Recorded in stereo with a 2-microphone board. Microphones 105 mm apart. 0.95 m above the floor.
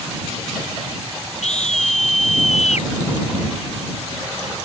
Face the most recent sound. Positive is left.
turn(degrees=75)  # may be behind; listen again after turning